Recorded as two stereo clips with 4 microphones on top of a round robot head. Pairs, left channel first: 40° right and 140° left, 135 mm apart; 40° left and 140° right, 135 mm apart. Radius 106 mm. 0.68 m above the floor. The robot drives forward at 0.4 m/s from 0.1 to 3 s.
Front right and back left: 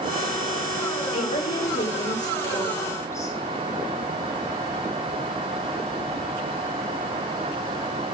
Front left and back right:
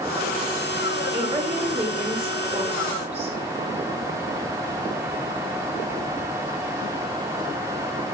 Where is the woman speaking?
85° right, 2.5 m; by 3.4 s 105° right, 2.5 m.